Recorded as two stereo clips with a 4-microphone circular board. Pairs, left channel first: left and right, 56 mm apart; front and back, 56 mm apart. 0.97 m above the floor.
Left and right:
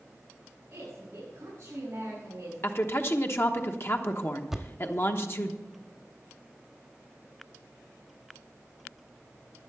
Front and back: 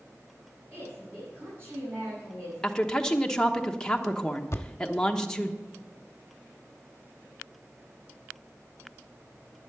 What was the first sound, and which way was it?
A woman speaking, 145° right.